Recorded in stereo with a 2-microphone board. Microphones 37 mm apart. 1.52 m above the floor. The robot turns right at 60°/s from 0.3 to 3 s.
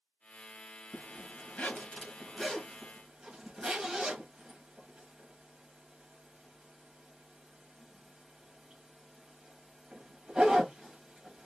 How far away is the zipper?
About 1.0 m.